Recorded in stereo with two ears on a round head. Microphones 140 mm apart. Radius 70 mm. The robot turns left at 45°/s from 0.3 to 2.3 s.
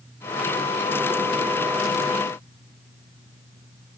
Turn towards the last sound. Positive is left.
No sound to turn to.